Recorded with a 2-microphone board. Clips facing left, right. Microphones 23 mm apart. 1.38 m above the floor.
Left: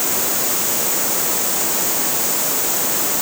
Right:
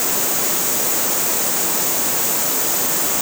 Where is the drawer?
No drawer in this recording.